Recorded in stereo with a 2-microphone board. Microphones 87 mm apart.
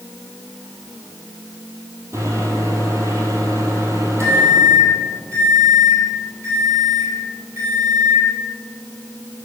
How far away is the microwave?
About 2 m.